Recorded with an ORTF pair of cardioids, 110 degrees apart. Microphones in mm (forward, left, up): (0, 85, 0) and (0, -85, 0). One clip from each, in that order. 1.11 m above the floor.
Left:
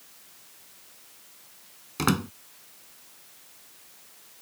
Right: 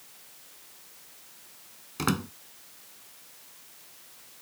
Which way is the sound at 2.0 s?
25° left.